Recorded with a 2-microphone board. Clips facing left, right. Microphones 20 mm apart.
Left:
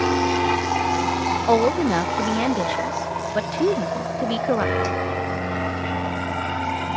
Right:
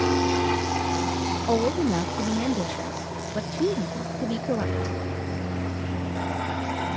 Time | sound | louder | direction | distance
0.0 | an aircraft | left 3 dB | 20° left (ahead or behind) | ?
1.5 | a woman speaking | left 5 dB | 45° left (ahead or behind) | ?